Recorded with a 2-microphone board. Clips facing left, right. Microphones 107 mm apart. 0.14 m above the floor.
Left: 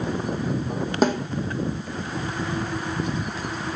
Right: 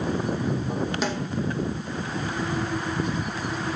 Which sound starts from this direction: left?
A snare drum, at 1.0 s.